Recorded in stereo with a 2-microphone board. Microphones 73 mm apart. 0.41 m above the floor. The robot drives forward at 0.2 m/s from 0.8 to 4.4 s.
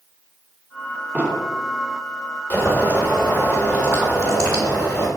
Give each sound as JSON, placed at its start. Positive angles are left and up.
{"t": 1.1, "sound": "an explosion", "side_deg": -20, "distance_m": 0.9}
{"t": 2.5, "sound": "boiling", "side_deg": 25, "distance_m": 1.7}